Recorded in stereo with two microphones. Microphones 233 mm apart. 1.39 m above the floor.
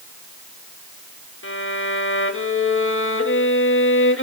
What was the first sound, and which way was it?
A violin, 60° left (ahead or behind).